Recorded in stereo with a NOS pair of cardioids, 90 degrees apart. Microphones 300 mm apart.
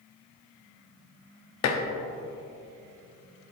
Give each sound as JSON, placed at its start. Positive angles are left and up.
{"t": 1.6, "sound": "dishes clattering", "azimuth_deg": 65, "distance_m": 1.1}